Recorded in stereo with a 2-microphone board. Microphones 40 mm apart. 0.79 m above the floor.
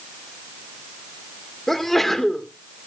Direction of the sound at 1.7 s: 5° left (ahead or behind).